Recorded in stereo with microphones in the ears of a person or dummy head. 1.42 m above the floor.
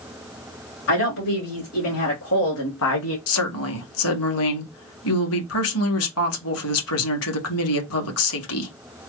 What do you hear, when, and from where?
0.9 s a woman speaking: 75° left (ahead or behind), 2.5 m; by 3.2 s 80° left, 0.6 m
3.3 s a woman speaking: 80° left, 1.0 m